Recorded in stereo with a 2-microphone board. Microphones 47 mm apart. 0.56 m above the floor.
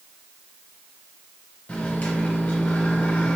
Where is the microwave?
30° left (ahead or behind), 1.5 m.